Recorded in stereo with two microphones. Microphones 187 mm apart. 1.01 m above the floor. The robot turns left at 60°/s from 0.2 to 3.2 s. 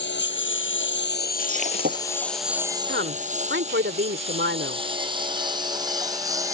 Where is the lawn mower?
70° left (ahead or behind); by 6.5 s 15° right (ahead or behind).